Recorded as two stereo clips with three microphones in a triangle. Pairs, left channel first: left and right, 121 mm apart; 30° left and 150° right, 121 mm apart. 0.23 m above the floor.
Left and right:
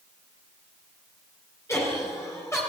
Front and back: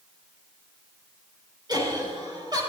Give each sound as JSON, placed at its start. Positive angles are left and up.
{"t": 1.7, "sound": "laughter", "azimuth_deg": 155, "distance_m": 5.5}